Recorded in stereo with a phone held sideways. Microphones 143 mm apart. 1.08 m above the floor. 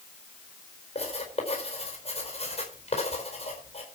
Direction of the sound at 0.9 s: 45° left (ahead or behind).